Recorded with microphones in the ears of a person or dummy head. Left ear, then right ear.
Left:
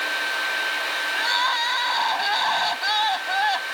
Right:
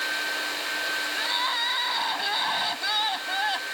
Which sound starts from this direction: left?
Crying, at 1.1 s.